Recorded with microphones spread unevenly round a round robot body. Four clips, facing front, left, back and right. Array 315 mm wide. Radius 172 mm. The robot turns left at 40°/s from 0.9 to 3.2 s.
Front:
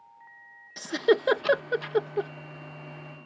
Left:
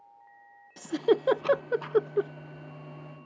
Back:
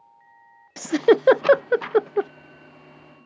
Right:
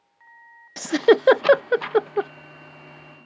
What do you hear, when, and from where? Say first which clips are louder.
0.8 s a giggle: right 8 dB, back 6 dB; 110° right; by 2.3 s 165° right